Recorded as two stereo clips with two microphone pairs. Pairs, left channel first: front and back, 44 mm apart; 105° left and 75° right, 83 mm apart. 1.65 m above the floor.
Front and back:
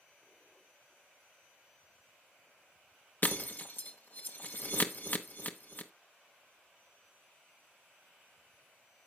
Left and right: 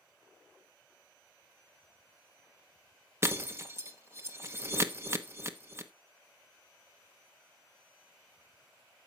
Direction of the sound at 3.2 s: 30° right.